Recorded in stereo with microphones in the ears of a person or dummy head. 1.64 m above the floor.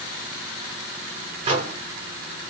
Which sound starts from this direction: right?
A microwave, at 1.4 s.